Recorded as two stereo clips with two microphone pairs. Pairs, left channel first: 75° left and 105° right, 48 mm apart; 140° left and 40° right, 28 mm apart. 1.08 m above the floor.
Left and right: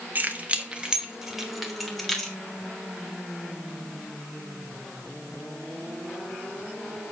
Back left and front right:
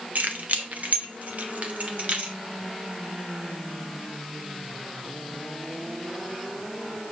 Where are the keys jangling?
55° right, 1.1 m; by 2.4 s 5° right, 1.8 m.